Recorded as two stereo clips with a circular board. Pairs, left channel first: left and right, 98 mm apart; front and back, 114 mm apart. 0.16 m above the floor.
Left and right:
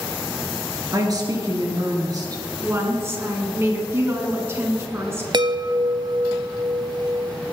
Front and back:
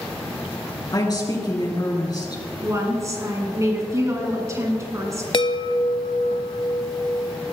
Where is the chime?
45° right, 0.5 m.